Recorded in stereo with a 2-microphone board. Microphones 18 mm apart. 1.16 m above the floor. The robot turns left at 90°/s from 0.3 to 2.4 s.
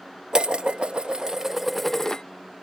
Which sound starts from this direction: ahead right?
Dishes clattering, at 0.3 s.